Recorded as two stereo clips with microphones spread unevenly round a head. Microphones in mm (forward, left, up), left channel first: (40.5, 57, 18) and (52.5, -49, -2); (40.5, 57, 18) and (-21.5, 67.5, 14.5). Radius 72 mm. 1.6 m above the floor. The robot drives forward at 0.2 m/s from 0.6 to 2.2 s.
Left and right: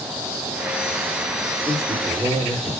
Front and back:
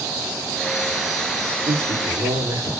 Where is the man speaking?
175° right, 1.1 m.